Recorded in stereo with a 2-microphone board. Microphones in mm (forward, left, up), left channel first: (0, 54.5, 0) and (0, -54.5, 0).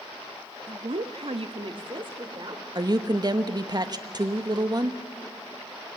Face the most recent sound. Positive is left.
turn(degrees=-40)  # may be behind; listen again after turning